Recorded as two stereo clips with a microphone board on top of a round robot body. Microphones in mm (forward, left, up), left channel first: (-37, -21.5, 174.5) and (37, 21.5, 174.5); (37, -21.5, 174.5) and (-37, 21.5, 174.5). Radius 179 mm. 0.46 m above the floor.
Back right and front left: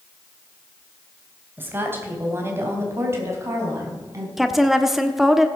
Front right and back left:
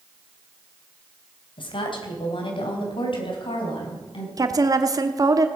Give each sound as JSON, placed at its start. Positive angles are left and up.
{"t": 1.6, "sound": "a woman speaking", "azimuth_deg": -35, "distance_m": 3.5}
{"t": 4.4, "sound": "a woman speaking", "azimuth_deg": 115, "distance_m": 1.2}